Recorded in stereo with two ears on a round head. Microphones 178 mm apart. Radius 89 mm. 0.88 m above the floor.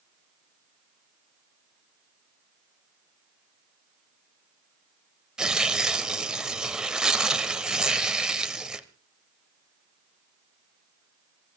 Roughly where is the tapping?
I don't hear tapping.